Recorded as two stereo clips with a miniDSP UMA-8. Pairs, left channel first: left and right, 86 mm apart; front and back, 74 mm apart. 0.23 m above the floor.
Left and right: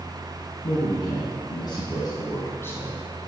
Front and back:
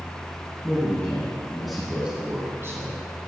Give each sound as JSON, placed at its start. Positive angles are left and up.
{"t": 0.6, "sound": "a man speaking", "azimuth_deg": 70, "distance_m": 3.0}